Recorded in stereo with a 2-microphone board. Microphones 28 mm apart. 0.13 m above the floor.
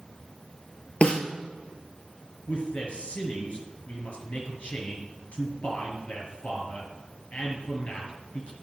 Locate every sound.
1.0 s a snare drum: 50° left (ahead or behind), 1.3 m
2.5 s a man speaking: 55° left (ahead or behind), 2.5 m